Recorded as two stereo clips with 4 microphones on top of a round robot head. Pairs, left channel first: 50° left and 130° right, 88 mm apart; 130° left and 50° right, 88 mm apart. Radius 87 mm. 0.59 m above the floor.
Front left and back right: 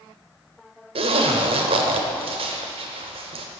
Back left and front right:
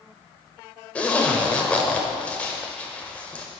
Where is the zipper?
150° right, 0.9 m.